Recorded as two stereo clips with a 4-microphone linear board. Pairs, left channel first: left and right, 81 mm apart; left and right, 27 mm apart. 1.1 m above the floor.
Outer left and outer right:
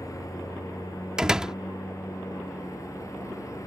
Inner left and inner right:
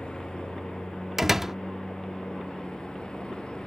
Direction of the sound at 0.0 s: 45° left (ahead or behind).